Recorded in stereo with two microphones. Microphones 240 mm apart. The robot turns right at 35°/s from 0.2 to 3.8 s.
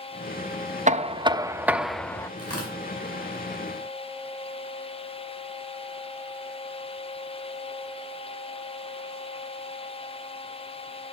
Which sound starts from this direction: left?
Tearing paper, at 2.4 s.